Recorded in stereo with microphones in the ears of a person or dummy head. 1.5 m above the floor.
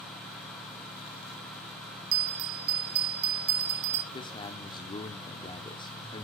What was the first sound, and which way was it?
A bell, 75° right (ahead or behind).